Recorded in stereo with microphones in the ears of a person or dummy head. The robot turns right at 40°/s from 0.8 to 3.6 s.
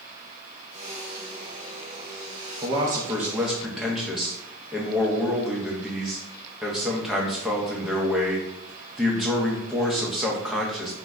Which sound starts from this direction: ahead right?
A man speaking, at 2.6 s.